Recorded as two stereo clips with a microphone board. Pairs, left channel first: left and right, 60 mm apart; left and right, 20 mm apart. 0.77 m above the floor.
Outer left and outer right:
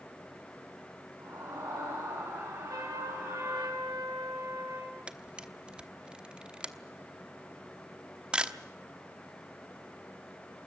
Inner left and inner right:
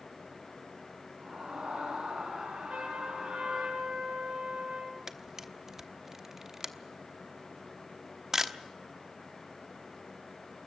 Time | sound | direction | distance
1.2 | a scream | 65° right (ahead or behind) | 9 m
2.7 | a trumpet | 85° right | 9 m
5.1 | a camera shutter | 20° right (ahead or behind) | 1.0 m